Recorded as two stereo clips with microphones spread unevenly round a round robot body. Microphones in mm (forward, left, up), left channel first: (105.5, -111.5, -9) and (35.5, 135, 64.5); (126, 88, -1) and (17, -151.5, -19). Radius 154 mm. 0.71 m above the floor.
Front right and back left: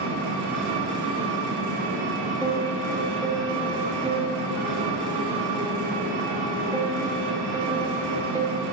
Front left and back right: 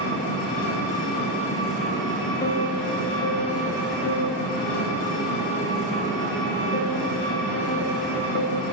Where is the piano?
20° left, 1.3 m.